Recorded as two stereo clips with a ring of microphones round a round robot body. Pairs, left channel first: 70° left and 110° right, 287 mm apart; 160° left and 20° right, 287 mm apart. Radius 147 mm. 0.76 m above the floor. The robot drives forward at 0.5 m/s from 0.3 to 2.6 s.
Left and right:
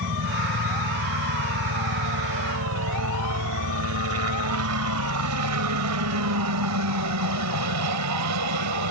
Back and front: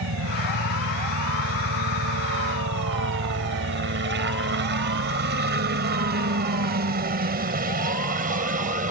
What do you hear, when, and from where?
0.0 s a helicopter: 65° right; by 8.9 s 85° right